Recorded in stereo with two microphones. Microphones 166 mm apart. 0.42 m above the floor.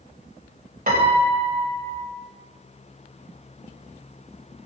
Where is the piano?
50° right (ahead or behind), 2.5 m.